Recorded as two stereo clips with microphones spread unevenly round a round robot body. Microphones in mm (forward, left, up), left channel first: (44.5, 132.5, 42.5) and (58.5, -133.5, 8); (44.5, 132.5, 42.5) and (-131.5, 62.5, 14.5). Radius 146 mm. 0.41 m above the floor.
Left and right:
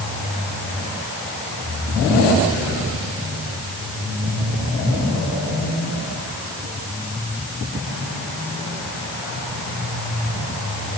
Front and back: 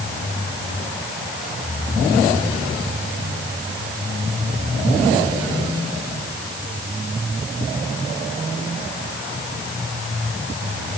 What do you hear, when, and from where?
Only background noise.